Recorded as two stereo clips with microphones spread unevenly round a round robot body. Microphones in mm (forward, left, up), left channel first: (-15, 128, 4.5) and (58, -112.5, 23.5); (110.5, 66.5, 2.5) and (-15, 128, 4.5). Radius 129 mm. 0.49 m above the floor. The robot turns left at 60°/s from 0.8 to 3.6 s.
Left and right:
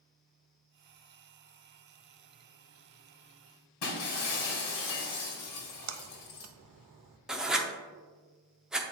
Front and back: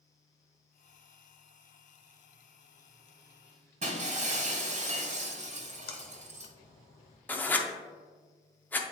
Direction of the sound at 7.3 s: 20° left.